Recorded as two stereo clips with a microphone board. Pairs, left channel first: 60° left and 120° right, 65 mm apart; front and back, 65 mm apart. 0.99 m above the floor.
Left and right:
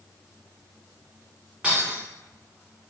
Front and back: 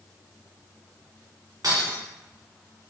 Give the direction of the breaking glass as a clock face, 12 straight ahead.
6 o'clock.